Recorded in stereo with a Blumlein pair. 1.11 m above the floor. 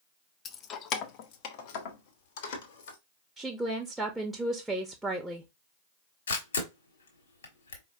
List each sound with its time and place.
0.5 s keys jangling: 25° left, 0.6 m; by 3.0 s 55° left, 1.7 m
3.4 s a woman speaking: 5° right, 1.1 m
6.3 s a camera shutter: 65° left, 1.7 m